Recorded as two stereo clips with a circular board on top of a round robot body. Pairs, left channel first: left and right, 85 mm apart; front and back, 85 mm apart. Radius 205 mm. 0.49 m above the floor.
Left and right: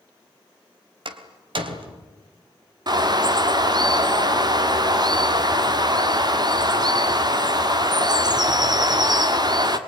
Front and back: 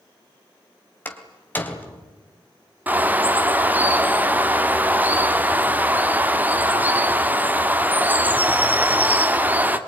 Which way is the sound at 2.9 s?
115° right.